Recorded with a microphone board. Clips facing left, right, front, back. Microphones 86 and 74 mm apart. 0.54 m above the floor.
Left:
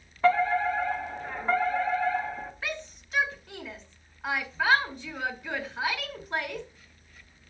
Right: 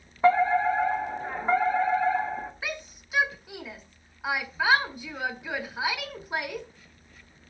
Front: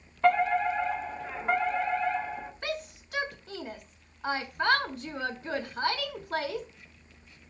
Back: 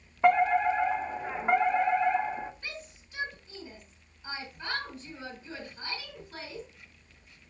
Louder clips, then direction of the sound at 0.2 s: Right 2 dB, back 1 dB; 130° right.